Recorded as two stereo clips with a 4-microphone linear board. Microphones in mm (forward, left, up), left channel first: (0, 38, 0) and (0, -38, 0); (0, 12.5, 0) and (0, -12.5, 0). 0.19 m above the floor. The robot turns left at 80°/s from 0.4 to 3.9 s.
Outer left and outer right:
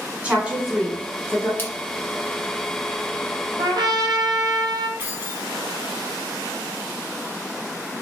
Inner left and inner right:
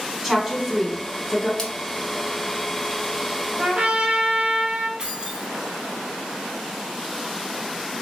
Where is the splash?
30° left (ahead or behind), 0.8 m.